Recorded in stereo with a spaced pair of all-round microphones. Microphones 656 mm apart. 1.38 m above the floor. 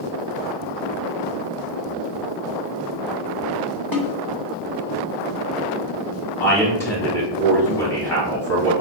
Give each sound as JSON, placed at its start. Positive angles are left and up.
{"t": 3.9, "sound": "a snare drum", "side_deg": 30, "distance_m": 1.0}
{"t": 6.4, "sound": "a man speaking", "side_deg": 5, "distance_m": 1.9}